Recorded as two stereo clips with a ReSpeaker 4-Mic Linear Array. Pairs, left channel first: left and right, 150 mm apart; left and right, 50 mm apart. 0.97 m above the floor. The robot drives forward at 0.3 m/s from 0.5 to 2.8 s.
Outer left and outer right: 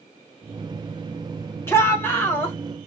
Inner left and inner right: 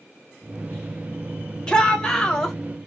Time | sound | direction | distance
1.7 | a shout | 15° left (ahead or behind) | 1.0 m